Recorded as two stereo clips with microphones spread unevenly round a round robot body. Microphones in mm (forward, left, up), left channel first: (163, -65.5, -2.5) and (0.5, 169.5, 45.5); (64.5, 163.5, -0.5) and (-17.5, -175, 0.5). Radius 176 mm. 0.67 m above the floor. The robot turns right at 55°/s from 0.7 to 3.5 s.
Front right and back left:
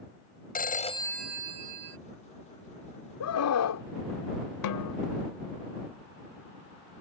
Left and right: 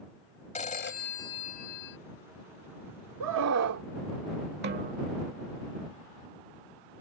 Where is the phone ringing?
5° left; by 2.0 s 75° left.